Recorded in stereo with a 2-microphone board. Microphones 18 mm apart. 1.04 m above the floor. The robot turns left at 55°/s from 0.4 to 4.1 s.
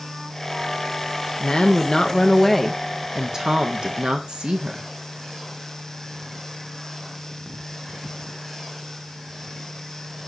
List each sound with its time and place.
1.4 s a woman speaking: 65° left, 0.6 m; by 4.9 s 80° right, 0.6 m